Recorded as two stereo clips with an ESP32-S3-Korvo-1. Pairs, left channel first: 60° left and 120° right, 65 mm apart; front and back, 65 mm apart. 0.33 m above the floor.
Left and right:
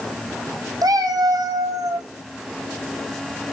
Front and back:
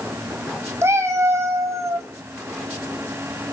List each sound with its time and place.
0.8 s a cat meowing: 135° right, 1.6 m; by 2.1 s 140° right, 2.5 m